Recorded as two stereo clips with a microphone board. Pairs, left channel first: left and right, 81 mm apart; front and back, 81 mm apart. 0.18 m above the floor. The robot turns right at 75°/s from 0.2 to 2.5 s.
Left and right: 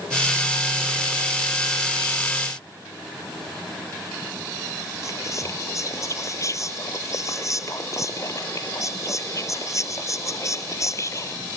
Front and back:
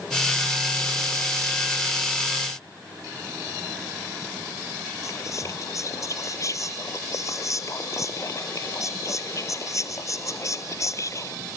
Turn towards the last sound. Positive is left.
turn(degrees=45)